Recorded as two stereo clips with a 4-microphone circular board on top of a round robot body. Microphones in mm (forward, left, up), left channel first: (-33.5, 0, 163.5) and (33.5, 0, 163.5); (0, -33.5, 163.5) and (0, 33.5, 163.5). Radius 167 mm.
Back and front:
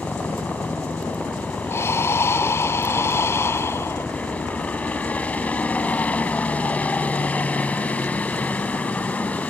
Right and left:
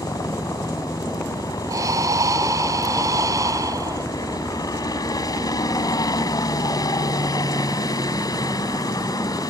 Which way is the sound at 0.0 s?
110° right.